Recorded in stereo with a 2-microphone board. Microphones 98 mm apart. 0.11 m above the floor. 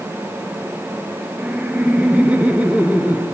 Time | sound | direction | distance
1.4 | laughter | 15° right (ahead or behind) | 1.4 m